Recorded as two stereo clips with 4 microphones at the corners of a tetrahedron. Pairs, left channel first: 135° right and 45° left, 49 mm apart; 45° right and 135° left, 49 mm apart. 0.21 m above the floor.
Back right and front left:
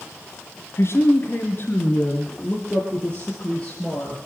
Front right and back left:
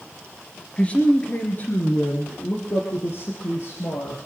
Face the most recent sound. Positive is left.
turn(degrees=-55)